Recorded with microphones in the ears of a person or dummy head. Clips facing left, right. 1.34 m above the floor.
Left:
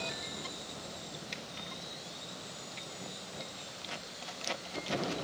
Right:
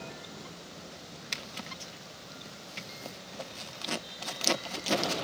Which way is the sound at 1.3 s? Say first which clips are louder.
Right 1 dB; 60° right (ahead or behind).